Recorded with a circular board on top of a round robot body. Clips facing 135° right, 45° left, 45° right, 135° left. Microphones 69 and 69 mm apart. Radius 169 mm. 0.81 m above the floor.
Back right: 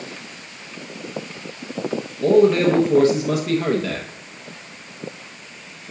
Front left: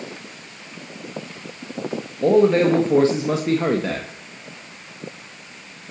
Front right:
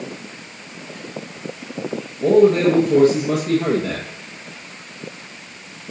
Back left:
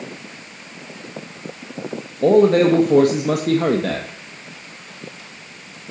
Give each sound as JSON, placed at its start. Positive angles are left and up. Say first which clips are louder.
{"t": 2.2, "sound": "a man speaking", "louder": "back right 1 dB, even", "azimuth_deg": 110, "distance_m": 1.1}